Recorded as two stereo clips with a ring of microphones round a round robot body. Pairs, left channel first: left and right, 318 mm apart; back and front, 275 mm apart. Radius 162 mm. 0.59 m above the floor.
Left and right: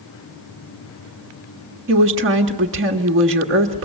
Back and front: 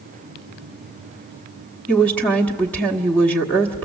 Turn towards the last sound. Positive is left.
turn(degrees=-100)